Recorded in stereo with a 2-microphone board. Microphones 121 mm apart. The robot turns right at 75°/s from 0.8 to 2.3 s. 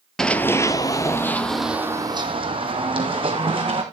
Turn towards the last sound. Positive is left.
turn(degrees=-45)  # may be behind; listen again after turning